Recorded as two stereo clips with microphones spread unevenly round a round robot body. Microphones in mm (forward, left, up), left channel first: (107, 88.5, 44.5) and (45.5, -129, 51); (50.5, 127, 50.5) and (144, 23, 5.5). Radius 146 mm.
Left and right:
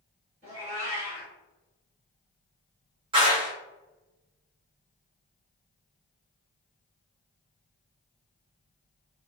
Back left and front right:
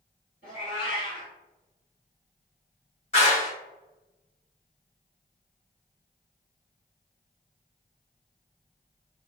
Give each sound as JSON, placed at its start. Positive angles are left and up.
{"t": 0.4, "sound": "a cat meowing", "azimuth_deg": -170, "distance_m": 1.8}
{"t": 3.1, "sound": "a clap", "azimuth_deg": -175, "distance_m": 1.3}